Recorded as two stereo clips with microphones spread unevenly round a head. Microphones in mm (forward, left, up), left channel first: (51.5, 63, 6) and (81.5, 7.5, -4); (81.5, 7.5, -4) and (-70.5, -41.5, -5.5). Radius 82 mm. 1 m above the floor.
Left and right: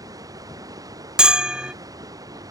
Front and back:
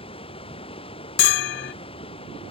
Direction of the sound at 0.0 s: 40° right.